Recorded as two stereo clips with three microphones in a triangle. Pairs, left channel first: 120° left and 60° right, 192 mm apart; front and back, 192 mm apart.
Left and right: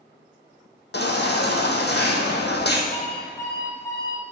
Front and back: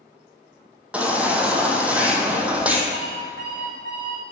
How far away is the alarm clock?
About 4 m.